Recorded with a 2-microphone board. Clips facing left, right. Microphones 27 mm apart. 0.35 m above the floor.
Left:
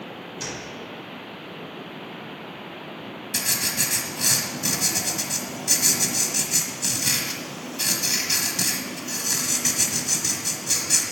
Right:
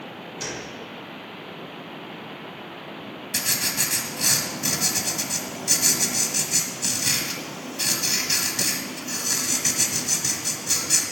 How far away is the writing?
About 1.5 m.